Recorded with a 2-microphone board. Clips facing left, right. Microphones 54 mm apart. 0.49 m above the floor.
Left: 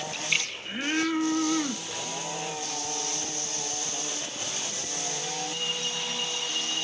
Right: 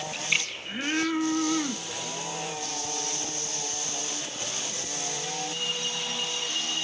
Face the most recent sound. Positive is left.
turn(degrees=-10)  # may be behind; listen again after turning